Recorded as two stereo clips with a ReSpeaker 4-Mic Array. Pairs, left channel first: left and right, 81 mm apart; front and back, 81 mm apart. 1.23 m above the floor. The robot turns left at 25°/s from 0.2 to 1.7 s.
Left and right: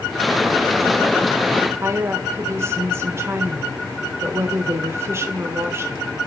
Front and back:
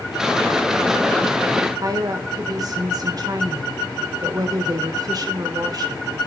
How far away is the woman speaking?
About 1.5 m.